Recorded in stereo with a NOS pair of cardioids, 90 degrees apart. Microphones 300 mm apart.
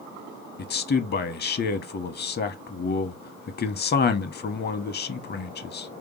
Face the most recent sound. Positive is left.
turn(degrees=35)